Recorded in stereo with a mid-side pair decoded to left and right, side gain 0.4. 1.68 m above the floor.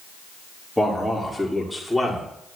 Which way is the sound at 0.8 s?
Straight ahead.